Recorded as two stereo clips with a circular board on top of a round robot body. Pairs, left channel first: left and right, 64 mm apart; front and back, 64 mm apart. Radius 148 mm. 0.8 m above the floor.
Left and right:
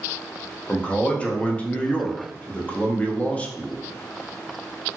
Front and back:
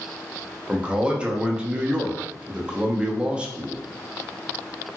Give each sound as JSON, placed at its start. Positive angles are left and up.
{"t": 0.7, "sound": "a man speaking", "azimuth_deg": 130, "distance_m": 0.7}